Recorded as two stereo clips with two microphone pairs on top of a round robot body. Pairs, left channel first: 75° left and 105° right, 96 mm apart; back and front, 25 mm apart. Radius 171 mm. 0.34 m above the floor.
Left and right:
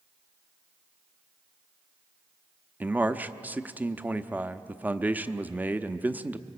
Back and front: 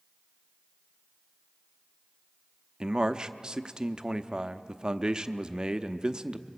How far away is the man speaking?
About 0.9 m.